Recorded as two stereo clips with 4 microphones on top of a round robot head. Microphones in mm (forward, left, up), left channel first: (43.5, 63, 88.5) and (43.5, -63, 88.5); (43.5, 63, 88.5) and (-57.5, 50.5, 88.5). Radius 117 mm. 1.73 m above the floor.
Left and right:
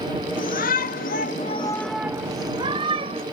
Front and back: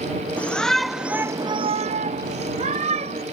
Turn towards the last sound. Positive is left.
turn(degrees=-140)